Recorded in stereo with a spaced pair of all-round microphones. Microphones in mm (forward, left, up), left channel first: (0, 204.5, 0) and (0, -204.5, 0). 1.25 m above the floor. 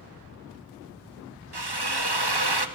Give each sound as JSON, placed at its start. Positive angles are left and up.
{"t": 1.5, "sound": "a drill", "side_deg": -70, "distance_m": 1.5}